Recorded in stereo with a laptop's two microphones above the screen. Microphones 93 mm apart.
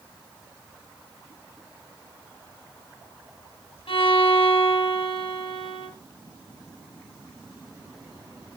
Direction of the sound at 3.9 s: 90° left.